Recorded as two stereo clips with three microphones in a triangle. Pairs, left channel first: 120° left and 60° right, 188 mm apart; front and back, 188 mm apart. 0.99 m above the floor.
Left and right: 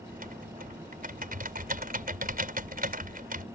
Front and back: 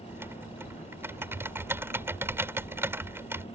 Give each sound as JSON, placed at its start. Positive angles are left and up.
{"t": 0.1, "sound": "typing on a keyboard", "azimuth_deg": -100}